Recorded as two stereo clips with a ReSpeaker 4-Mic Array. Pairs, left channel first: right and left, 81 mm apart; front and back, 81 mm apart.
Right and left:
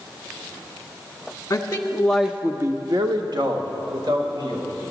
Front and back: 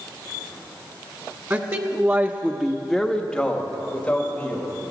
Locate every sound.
1.5 s a man speaking: 130° right, 1.0 m; by 4.7 s 70° left, 2.5 m